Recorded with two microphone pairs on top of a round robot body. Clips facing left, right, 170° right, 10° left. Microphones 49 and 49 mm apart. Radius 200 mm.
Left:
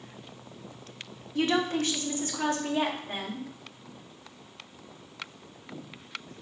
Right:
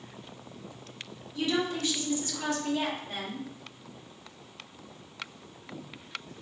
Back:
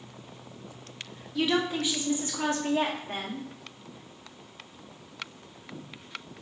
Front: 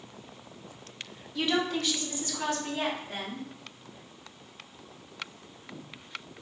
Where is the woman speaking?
95° left, 1.0 m; by 3.4 s 145° left, 1.5 m.